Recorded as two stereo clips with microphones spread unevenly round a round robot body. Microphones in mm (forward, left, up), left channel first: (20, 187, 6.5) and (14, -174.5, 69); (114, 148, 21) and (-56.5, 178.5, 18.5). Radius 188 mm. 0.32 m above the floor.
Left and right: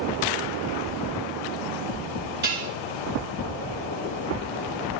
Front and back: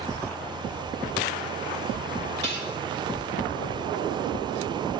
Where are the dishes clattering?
155° right, 4 m.